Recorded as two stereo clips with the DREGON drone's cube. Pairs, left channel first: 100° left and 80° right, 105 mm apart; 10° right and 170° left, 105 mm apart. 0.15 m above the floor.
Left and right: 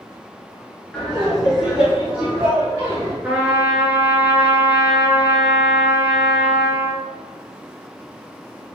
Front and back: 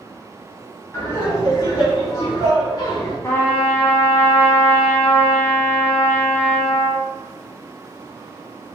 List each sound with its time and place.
0.9 s laughter: 30° left, 1.5 m; by 3.1 s 35° right, 1.9 m
3.2 s a trumpet: 25° right, 1.1 m